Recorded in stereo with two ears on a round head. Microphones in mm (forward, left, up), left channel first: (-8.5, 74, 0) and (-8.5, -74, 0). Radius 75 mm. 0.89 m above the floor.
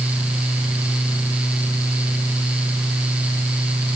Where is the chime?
No chime in this recording.